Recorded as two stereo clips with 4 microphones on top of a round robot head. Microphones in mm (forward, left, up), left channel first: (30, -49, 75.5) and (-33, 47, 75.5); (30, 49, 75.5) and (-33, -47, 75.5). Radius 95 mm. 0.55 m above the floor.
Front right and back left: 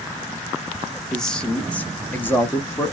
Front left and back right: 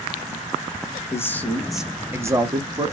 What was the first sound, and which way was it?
A man speaking, 25° left.